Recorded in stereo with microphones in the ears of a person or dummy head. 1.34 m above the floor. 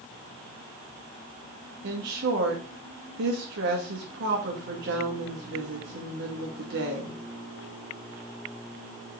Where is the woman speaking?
60° right (ahead or behind), 2.5 m.